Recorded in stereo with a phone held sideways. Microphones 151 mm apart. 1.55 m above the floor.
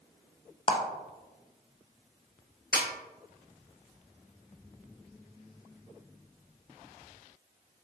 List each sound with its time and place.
0.7 s a clap: 35° left (ahead or behind), 0.6 m
2.7 s a snare drum: 80° left, 0.7 m